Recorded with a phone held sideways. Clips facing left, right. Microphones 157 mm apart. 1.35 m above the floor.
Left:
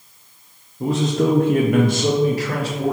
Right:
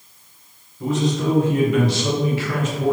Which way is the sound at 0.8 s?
30° left (ahead or behind).